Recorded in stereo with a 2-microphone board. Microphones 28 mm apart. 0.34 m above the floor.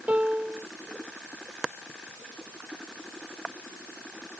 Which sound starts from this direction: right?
A piano, at 0.1 s.